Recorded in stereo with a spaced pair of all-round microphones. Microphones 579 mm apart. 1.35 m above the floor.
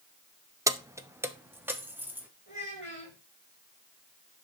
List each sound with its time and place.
0.7 s keys jangling: 5° right (ahead or behind), 0.6 m
2.5 s a child speaking: 15° left (ahead or behind), 5.5 m